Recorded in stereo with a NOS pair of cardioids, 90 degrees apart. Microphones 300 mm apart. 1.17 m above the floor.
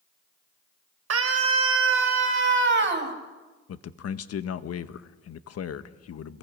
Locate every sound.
1.1 s a scream: 55° right, 4.5 m; by 3.1 s 40° right, 6 m
3.7 s a man speaking: 55° left, 1.3 m